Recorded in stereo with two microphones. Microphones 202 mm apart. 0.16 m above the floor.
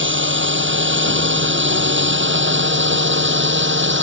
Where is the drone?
70° right (ahead or behind).